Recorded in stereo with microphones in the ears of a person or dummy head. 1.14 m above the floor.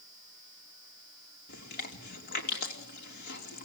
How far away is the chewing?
About 3 m.